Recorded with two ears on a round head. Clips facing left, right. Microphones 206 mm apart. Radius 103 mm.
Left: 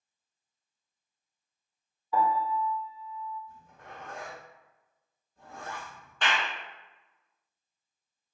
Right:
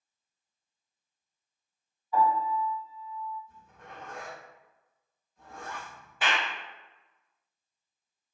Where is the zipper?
30° left (ahead or behind), 1.5 m.